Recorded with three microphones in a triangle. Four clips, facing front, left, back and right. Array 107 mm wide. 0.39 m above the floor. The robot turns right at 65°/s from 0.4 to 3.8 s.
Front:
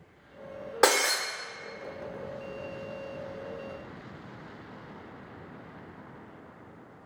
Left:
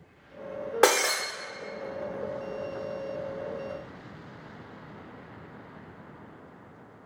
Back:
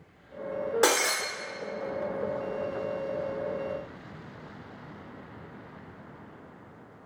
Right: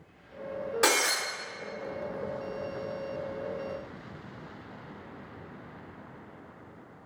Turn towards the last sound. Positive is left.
turn(degrees=-95)